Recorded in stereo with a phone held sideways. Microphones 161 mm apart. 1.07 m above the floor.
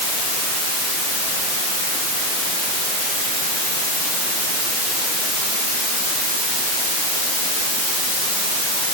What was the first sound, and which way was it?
Only background noise.